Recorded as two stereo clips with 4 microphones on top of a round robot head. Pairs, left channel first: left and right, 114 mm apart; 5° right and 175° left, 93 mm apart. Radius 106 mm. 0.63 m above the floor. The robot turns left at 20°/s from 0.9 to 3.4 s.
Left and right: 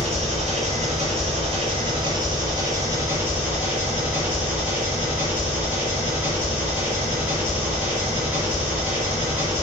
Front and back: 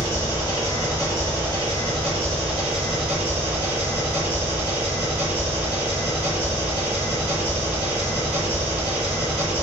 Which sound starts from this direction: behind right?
An engine running, at 0.0 s.